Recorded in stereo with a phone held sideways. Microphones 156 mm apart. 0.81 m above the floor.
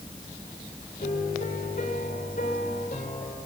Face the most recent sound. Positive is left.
turn(degrees=65)  # may be behind; listen again after turning